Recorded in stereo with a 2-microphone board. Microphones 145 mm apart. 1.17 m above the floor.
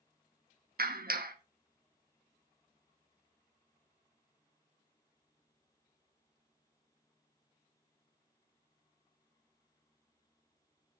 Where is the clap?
80° right, 1.1 m.